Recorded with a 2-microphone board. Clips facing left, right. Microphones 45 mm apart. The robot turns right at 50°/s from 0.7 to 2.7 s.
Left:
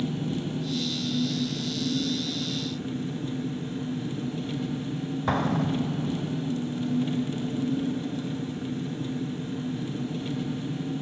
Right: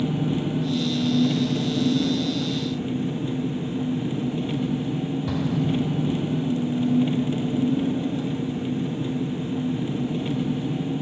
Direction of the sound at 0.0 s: 140° right.